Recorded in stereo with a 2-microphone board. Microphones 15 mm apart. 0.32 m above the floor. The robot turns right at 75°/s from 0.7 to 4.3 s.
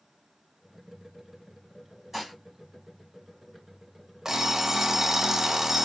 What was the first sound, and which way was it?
Dishes clattering, 10° right (ahead or behind).